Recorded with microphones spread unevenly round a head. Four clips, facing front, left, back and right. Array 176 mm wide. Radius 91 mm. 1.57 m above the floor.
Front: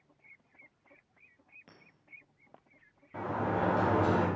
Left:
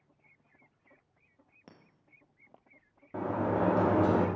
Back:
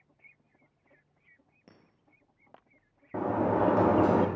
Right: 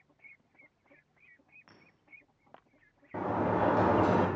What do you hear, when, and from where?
1.7 s a clink: 120° left, 1.5 m
3.1 s a sliding door: 175° right, 1.6 m